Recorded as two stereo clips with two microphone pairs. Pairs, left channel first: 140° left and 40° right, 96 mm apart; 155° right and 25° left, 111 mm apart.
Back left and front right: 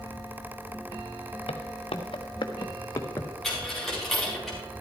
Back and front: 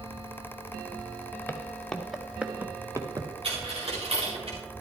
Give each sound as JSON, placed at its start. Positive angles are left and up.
{"t": 1.5, "sound": "footsteps", "azimuth_deg": 130, "distance_m": 1.6}
{"t": 3.4, "sound": "a dropped coin", "azimuth_deg": 55, "distance_m": 4.0}